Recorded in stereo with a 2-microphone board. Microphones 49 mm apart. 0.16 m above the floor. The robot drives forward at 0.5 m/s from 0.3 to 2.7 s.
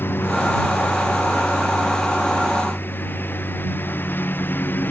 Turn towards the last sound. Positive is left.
turn(degrees=45)  # may be behind; listen again after turning